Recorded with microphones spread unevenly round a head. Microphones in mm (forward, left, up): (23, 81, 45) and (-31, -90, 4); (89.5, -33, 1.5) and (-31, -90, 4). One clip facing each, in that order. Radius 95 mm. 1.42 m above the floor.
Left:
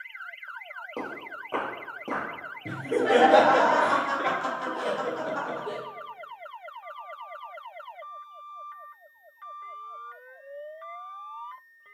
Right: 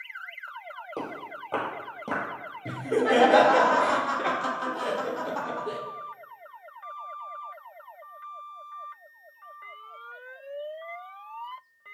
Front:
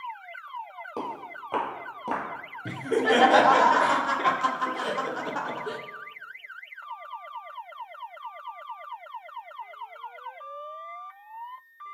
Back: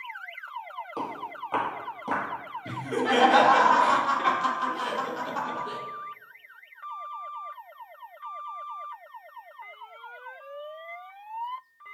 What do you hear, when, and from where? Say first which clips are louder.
1.0 s footsteps: even, even; 5° left, 1.8 m; by 2.2 s 35° right, 1.5 m
2.6 s laughter: even, front 3 dB; 15° right, 0.7 m